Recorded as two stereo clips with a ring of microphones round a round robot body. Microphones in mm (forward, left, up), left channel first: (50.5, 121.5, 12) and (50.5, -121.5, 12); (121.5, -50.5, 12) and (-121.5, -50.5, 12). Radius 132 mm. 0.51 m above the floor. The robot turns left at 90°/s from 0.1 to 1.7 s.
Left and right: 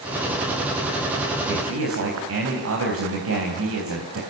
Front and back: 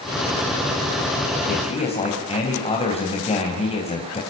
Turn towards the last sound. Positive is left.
turn(degrees=-65)